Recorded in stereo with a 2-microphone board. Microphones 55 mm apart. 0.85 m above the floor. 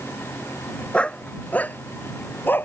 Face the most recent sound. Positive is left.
turn(degrees=40)  # may be behind; listen again after turning